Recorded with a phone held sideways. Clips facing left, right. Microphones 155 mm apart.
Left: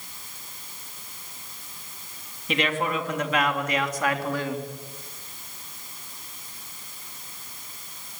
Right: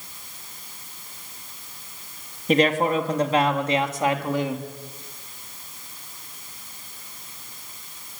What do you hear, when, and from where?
2.5 s a man speaking: 45° right (ahead or behind), 3 m; by 4.6 s 15° right (ahead or behind), 3.5 m